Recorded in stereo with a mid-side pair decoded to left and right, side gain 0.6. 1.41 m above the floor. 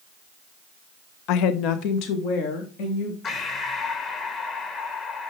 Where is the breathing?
45° left, 1.6 m.